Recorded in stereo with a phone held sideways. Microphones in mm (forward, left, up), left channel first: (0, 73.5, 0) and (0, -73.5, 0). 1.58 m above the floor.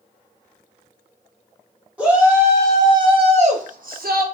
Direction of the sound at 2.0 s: 10° right (ahead or behind).